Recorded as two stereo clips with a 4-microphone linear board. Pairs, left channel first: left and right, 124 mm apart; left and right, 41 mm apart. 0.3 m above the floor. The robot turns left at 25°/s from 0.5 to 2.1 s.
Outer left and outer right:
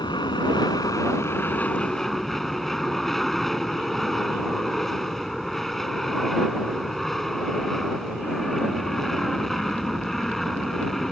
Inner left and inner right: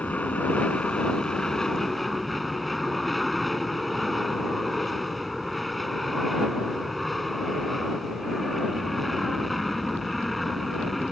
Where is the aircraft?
40° left; by 11.1 s straight ahead.